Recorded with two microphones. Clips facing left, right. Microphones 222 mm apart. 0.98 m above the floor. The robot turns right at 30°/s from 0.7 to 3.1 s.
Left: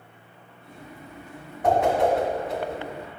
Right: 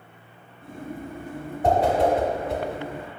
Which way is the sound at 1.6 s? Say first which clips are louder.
Even; 30° right (ahead or behind).